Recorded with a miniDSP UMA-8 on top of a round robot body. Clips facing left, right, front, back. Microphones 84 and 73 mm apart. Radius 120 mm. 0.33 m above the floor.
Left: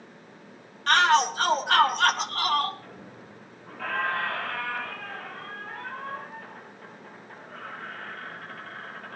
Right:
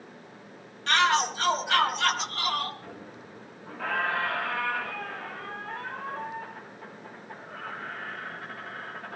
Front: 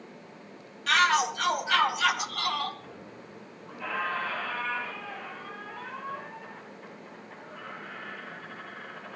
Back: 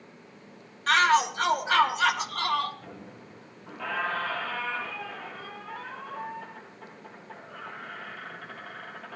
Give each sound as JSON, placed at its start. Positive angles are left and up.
{"t": 0.9, "sound": "a shout", "azimuth_deg": 130, "distance_m": 5.0}
{"t": 2.8, "sound": "a squeak", "azimuth_deg": -170, "distance_m": 8.5}